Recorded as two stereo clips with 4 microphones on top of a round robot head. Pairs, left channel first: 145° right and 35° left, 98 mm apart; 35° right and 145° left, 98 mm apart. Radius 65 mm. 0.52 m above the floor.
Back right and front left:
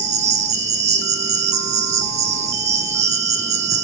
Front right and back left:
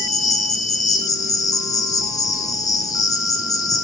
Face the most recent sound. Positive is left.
turn(degrees=20)